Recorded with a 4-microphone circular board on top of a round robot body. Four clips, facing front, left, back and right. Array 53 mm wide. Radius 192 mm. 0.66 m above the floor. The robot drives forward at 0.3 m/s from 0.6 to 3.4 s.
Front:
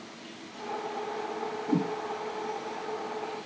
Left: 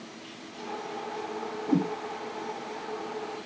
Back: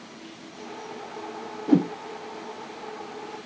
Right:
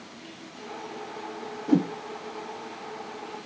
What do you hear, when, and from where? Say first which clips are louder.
1.7 s a whoosh: right 4 dB, back 8 dB; 155° right, 0.6 m; by 1.9 s 160° right, 0.7 m